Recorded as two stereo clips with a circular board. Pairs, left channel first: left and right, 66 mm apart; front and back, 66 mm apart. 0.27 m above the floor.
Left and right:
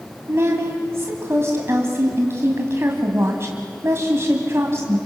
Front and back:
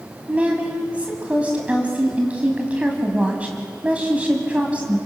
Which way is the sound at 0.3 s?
115° right.